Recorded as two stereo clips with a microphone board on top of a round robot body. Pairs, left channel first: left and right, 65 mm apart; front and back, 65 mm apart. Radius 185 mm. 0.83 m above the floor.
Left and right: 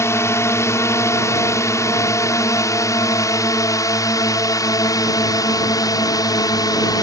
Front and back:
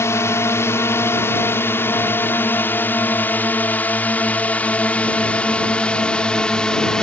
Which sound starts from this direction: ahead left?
A drone, at 0.0 s.